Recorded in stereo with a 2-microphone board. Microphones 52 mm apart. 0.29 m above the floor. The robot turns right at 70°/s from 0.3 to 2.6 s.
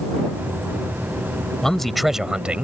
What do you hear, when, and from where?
1.6 s a man speaking: 160° left; by 2.6 s 130° right